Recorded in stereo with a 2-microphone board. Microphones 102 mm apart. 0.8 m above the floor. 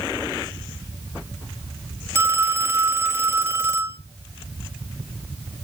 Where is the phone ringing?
20° right (ahead or behind), 0.7 m.